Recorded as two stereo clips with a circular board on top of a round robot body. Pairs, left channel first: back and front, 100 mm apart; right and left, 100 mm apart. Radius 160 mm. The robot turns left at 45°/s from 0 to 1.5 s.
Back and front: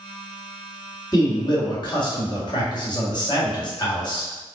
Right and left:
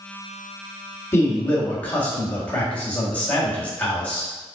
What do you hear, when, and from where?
1.1 s a man speaking: 145° right, 1.8 m; by 4.3 s 160° right, 1.8 m